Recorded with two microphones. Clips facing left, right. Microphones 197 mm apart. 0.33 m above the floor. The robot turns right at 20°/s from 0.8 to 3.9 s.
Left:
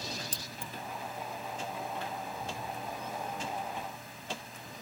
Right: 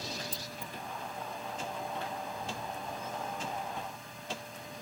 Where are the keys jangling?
70° left (ahead or behind).